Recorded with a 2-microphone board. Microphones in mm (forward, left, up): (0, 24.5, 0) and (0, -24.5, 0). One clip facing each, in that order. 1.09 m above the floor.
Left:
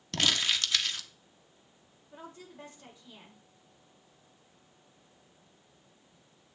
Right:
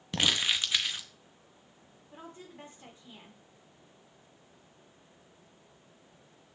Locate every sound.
0.1 s crumpling: 15° right (ahead or behind), 1.3 m
2.1 s a woman speaking: 30° right (ahead or behind), 4.5 m